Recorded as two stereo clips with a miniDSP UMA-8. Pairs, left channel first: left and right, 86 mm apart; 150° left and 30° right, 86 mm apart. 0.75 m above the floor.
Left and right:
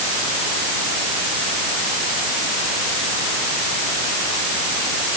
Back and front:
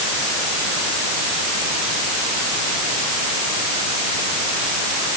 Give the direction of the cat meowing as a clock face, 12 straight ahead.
I don't hear a cat meowing.